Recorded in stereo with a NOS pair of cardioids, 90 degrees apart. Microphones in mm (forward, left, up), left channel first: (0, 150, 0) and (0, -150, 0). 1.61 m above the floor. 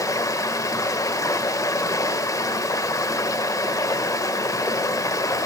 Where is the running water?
10° left, 1.6 m.